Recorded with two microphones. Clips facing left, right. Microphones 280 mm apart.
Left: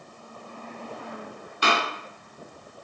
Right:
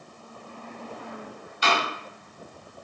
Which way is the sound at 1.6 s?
60° left (ahead or behind).